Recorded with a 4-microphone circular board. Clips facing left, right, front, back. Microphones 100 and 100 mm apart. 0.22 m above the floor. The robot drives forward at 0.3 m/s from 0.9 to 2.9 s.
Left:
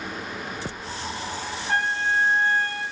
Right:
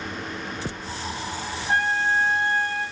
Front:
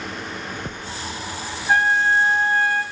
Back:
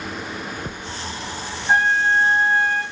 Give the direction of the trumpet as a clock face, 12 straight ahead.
3 o'clock.